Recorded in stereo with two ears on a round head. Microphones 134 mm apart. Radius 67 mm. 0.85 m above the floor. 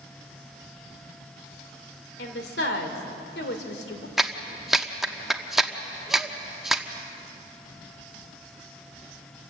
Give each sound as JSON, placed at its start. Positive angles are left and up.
{"t": 2.2, "sound": "a woman speaking", "side_deg": 70, "distance_m": 2.5}
{"t": 4.2, "sound": "a clap", "side_deg": 0, "distance_m": 0.9}